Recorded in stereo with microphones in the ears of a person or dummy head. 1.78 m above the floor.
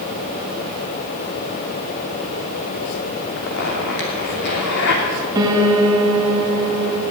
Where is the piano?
20° right (ahead or behind), 1.9 m.